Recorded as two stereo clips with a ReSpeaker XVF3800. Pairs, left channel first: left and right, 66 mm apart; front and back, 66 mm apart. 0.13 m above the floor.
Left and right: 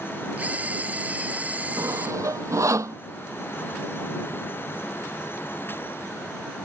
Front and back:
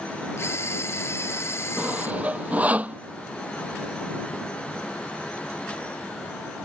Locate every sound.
0.4 s a camera shutter: 30° right
1.8 s sawing: 115° right